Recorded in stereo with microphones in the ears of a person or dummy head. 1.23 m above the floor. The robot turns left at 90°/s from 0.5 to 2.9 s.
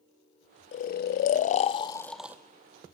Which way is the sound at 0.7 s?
140° left.